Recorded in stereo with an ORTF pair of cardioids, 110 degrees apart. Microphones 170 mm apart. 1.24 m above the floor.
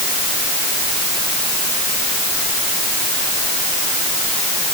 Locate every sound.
Only background noise.